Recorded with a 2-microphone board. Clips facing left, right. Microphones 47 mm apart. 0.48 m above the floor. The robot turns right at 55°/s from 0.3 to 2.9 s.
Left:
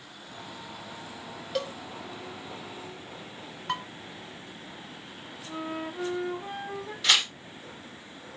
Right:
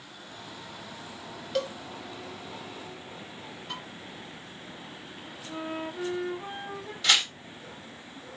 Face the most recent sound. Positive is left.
turn(degrees=5)  # may be behind; listen again after turning